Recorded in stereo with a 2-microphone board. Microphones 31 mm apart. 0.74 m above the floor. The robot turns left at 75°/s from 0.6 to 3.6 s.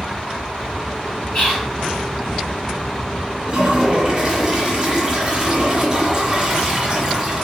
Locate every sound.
1.3 s whispering: 45° left (ahead or behind), 2 m; by 1.7 s 25° left (ahead or behind), 2 m
3.5 s a toilet flushing: 40° right (ahead or behind), 1.4 m; by 7.4 s 30° right (ahead or behind), 1.4 m